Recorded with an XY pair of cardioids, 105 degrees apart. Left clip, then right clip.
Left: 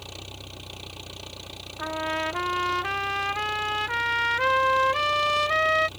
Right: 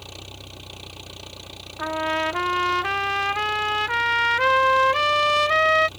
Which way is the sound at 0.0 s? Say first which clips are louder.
Right 1 dB; straight ahead.